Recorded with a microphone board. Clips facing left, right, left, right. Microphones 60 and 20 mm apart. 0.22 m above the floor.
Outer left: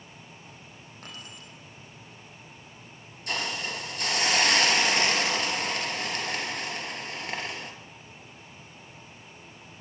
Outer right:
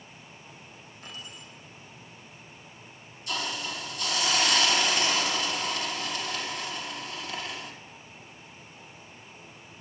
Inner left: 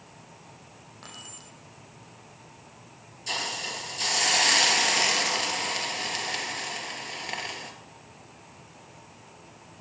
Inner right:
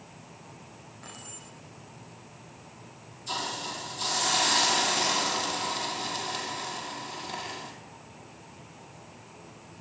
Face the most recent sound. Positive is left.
turn(degrees=55)  # may be behind; listen again after turning